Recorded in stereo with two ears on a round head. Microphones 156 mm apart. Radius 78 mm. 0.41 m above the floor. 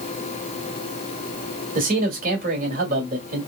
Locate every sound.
1.8 s a man speaking: 50° right (ahead or behind), 2 m